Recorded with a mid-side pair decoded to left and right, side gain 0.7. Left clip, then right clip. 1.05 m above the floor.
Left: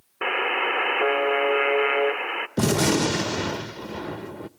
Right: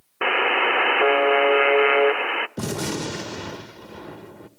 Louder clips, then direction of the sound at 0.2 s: Right 4 dB; 25° right.